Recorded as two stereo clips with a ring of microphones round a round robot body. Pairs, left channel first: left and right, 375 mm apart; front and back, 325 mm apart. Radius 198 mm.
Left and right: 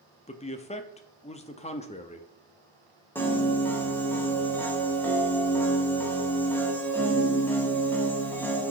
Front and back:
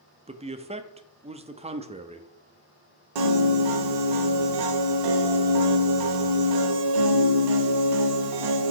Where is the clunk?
No clunk in this recording.